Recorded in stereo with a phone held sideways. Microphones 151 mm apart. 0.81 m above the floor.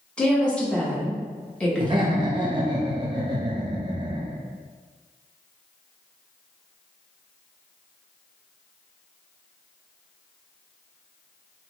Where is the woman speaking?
5° left (ahead or behind), 1.1 m.